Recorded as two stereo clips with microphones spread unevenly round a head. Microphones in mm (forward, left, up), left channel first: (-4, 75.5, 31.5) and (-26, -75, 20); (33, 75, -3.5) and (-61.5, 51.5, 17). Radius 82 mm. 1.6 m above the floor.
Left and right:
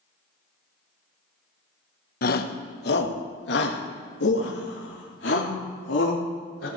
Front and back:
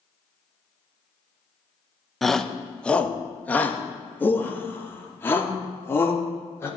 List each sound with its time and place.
2.2 s a shout: 105° left, 1.2 m; by 6.7 s 80° left, 4 m